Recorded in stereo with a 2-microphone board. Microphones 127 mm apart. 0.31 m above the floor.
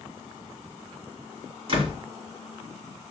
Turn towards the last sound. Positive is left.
turn(degrees=-45)  # may be behind; listen again after turning